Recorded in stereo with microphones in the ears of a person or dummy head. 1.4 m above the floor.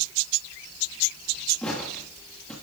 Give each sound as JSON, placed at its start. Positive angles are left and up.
{"t": 1.6, "sound": "footsteps", "side_deg": 5, "distance_m": 1.4}